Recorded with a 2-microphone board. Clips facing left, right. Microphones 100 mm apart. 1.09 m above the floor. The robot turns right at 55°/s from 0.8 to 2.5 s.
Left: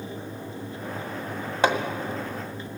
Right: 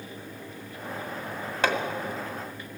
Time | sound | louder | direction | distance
1.6 | hammering | left 4 dB | 15° left (ahead or behind) | 2.0 m